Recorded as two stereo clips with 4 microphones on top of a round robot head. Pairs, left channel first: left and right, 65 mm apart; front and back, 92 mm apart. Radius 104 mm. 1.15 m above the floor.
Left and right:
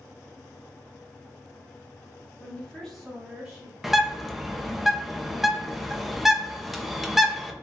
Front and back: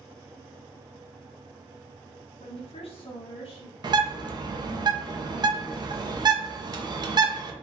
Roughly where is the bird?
Behind.